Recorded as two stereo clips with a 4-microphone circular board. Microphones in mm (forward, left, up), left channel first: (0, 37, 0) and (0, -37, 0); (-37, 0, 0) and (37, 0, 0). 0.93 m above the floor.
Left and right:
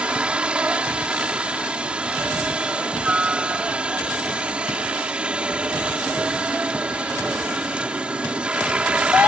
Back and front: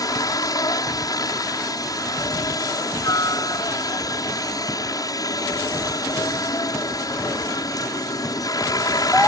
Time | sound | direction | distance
0.0 | a helicopter | 165° right | ?